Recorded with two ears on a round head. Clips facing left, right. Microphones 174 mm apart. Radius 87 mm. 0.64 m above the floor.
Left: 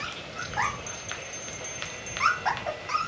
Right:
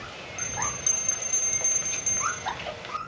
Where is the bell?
35° right (ahead or behind).